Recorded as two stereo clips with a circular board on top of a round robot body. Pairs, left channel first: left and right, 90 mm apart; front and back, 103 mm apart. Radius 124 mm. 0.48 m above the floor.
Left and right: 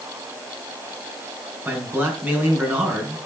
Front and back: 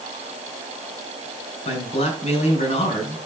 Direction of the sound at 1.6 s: 20° right.